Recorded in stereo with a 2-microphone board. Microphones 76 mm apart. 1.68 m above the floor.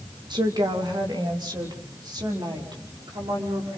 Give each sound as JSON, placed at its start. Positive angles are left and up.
{"t": 0.3, "sound": "a woman speaking", "side_deg": -70, "distance_m": 2.0}